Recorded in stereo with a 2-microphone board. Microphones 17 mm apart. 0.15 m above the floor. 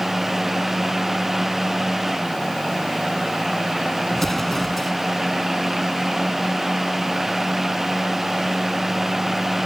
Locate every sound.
4.1 s an explosion: 20° left (ahead or behind)